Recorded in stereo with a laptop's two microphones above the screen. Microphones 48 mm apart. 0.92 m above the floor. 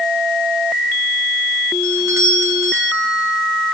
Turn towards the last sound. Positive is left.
turn(degrees=-80)